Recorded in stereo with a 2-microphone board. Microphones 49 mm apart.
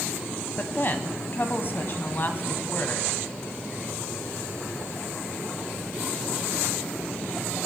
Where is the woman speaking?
45° left (ahead or behind), 1.3 m.